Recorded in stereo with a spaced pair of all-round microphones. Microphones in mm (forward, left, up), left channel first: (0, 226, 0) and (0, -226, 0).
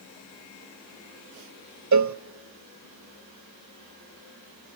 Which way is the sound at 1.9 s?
40° right (ahead or behind).